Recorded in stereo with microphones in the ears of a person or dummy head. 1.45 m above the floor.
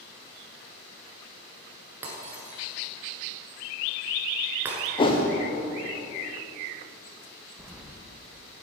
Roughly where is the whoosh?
Left.